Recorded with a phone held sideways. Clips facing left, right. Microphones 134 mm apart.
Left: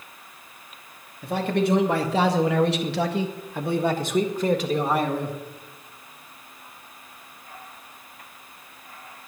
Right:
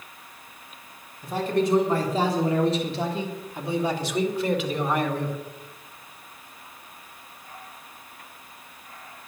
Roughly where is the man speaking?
Left.